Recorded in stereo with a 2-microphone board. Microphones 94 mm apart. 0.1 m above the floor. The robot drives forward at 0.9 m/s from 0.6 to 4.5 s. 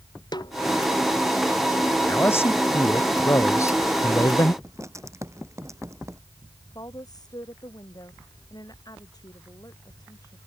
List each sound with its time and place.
0.3 s a snare drum: 50° left (ahead or behind)
2.1 s a man speaking: 25° left (ahead or behind); by 4.5 s 35° left (ahead or behind)
4.6 s writing: 30° right (ahead or behind)
6.8 s a woman speaking: 45° left (ahead or behind)